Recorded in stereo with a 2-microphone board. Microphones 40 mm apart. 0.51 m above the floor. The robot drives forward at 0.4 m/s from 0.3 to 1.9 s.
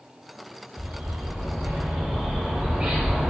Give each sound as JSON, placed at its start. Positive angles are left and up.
{"t": 0.8, "sound": "a bird", "side_deg": -50, "distance_m": 1.1}